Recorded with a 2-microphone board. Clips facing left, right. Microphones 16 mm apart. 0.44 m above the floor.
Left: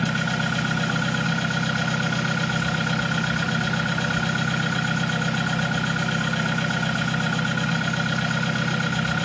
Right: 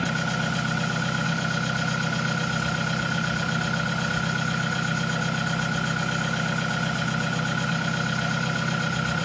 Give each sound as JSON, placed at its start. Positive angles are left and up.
{"t": 0.0, "sound": "an engine running", "side_deg": 20, "distance_m": 1.2}